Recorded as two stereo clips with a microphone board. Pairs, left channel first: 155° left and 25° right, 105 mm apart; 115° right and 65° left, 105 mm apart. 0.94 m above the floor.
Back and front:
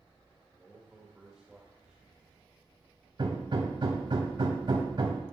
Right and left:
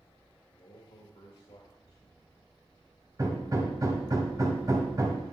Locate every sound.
0.5 s a man speaking: 105° right, 1.8 m
3.2 s hammering: 15° left, 1.6 m